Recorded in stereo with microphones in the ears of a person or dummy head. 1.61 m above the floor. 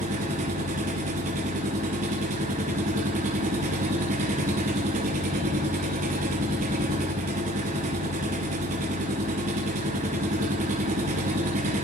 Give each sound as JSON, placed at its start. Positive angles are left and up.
{"t": 0.0, "sound": "an engine running", "side_deg": -35, "distance_m": 1.0}